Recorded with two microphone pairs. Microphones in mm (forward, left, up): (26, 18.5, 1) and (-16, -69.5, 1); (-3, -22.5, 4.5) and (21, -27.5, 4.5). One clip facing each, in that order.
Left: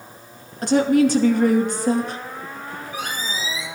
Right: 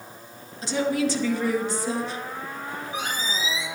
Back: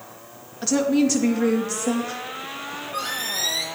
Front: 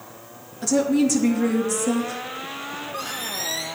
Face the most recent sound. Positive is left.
turn(degrees=175)